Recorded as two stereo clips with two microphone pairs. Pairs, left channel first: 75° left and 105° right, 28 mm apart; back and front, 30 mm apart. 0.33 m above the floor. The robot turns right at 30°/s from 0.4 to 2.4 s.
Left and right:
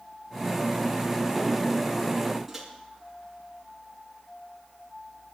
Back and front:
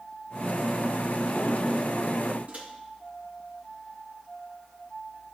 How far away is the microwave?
About 3.5 m.